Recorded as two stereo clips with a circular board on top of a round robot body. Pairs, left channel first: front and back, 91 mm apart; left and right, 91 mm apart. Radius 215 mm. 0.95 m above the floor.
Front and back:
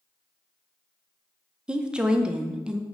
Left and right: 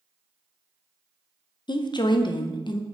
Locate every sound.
1.7 s a woman speaking: 100° left, 0.6 m